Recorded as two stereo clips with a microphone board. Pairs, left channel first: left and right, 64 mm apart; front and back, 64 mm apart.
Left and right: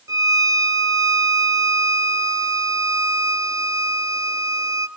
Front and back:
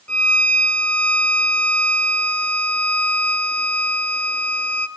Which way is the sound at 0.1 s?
70° right.